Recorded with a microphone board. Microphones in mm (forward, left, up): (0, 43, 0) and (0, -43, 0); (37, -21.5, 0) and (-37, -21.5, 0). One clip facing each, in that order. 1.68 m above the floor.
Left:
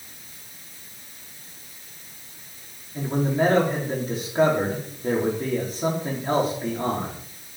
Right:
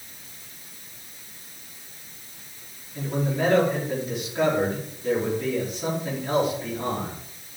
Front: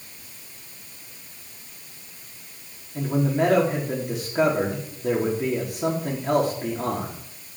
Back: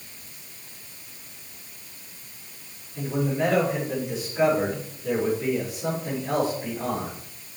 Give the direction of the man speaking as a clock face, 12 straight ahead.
11 o'clock.